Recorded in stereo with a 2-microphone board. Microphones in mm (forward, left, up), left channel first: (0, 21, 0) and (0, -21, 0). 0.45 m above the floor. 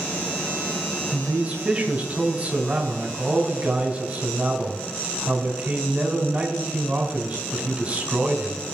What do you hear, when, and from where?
1.1 s a man speaking: 30° right (ahead or behind), 2.5 m